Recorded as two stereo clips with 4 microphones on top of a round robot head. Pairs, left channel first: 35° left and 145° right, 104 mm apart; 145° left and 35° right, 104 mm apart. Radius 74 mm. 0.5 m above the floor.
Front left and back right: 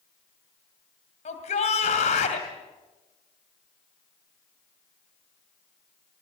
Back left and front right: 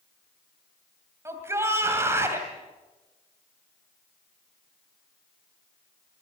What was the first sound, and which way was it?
A shout, 35° left.